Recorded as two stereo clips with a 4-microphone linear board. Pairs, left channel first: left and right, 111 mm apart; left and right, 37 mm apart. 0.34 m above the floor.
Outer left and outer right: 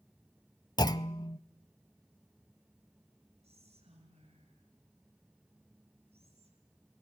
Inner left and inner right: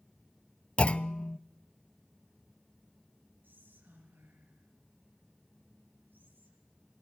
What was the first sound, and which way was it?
A clunk, 35° left (ahead or behind).